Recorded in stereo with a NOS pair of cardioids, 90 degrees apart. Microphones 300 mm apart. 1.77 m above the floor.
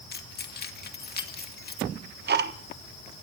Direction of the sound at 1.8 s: 35° right.